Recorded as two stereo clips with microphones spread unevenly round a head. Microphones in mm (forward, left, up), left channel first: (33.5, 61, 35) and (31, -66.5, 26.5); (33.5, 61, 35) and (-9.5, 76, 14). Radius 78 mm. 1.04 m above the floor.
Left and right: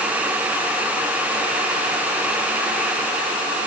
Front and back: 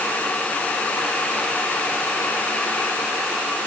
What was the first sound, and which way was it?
Only background noise.